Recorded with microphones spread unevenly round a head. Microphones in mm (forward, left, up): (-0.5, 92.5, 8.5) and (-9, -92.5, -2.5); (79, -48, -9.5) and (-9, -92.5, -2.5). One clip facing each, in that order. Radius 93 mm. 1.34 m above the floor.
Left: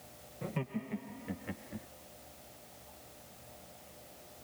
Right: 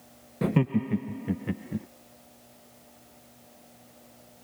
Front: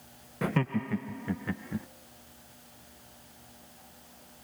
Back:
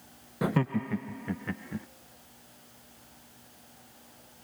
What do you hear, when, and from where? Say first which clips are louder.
0.4 s laughter: right 14 dB, back 1 dB; 75° right; by 1.9 s 60° right